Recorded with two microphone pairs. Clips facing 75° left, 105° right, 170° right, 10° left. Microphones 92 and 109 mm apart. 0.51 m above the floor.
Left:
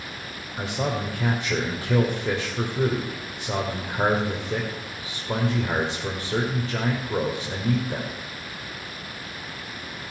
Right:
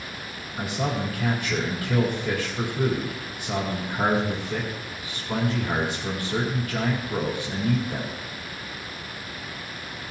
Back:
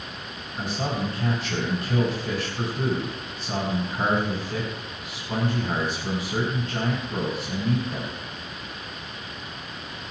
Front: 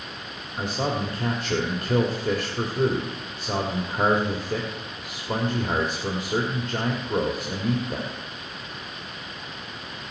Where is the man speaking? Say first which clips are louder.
Even, front 2 dB; 20° left, 1.9 m.